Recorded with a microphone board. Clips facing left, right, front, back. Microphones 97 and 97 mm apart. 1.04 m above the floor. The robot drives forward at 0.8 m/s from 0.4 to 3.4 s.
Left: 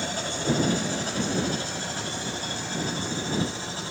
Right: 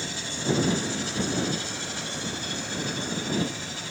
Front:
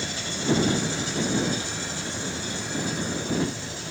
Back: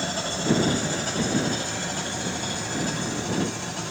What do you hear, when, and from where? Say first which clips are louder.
0.0 s an engine running: left 3 dB, back 3 dB; 130° left, 4 m; by 3.9 s 145° left, 6 m